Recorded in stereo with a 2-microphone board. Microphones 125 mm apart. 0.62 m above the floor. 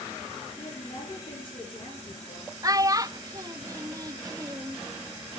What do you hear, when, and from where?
0.6 s a woman speaking: 45° left (ahead or behind), 9.5 m
2.6 s a child speaking: 30° right (ahead or behind), 0.5 m